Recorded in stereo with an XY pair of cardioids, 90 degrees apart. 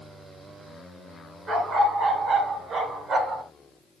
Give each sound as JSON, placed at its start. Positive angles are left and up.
{"t": 1.5, "sound": "a dog barking", "azimuth_deg": -60, "distance_m": 3.0}